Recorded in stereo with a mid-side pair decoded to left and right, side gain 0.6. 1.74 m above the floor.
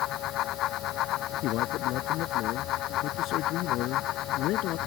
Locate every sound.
0.0 s a fan: 60° left
1.4 s a man speaking: 65° left